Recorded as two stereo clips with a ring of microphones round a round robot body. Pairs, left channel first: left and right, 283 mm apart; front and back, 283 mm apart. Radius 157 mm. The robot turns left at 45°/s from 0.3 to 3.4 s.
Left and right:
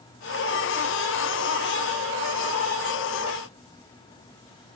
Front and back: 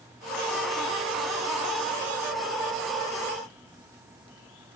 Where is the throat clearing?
I don't hear throat clearing.